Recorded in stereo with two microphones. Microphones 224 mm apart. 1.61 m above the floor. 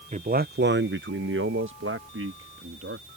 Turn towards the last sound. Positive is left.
turn(degrees=-70)  # may be behind; listen again after turning